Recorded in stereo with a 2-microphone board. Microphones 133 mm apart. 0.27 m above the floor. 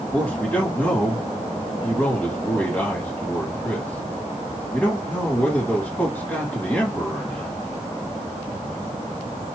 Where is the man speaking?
15° left (ahead or behind), 1.5 m.